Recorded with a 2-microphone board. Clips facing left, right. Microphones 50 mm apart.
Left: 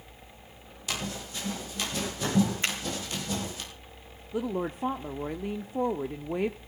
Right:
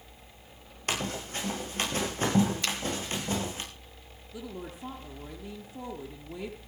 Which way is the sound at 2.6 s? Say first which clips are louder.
Left 2 dB; 30° left (ahead or behind).